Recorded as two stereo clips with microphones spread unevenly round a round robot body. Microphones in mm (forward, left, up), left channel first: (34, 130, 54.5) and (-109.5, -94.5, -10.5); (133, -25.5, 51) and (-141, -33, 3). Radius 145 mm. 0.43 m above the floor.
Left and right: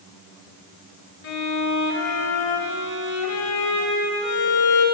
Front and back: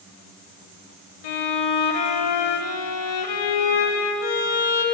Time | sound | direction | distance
1.2 | a violin | 5° left | 0.7 m